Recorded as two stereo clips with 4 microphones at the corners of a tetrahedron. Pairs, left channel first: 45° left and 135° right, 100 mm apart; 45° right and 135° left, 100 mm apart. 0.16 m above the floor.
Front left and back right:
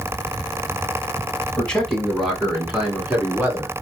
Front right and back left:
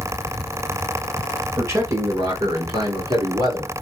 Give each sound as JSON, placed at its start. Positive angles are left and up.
{"t": 1.6, "sound": "a man speaking", "azimuth_deg": 115, "distance_m": 1.5}